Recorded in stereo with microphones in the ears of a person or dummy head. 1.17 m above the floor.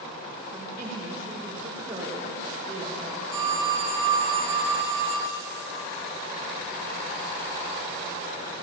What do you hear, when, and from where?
0.5 s a woman speaking: 15° right (ahead or behind), 3 m
3.3 s a phone ringing: 20° right (ahead or behind), 3 m